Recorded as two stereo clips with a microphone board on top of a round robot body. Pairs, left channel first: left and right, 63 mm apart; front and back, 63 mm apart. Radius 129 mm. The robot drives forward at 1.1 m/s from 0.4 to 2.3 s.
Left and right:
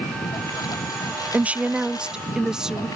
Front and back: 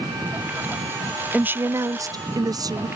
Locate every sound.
0.0 s a lawn mower: 115° left; by 3.0 s 120° left
1.3 s a woman speaking: 125° right; by 2.9 s 170° right